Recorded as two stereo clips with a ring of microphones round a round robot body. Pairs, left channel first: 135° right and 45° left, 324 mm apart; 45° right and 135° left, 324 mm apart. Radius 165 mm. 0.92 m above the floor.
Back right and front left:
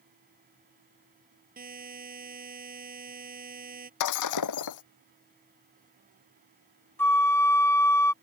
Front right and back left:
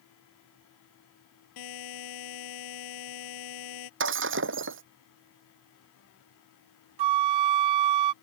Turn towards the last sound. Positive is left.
turn(degrees=140)